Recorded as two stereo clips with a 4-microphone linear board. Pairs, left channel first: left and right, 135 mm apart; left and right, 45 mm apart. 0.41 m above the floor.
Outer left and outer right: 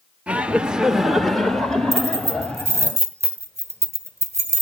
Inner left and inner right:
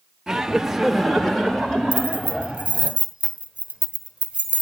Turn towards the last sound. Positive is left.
turn(degrees=-20)  # may be behind; listen again after turning